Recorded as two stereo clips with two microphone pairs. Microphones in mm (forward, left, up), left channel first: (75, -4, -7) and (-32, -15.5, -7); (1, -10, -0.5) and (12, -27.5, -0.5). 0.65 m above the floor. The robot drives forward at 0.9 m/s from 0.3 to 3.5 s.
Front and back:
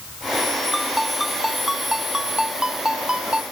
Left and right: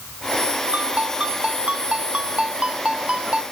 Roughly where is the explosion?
No explosion in this recording.